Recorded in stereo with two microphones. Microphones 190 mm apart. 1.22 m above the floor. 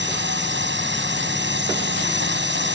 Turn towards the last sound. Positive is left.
turn(degrees=-70)  # may be behind; listen again after turning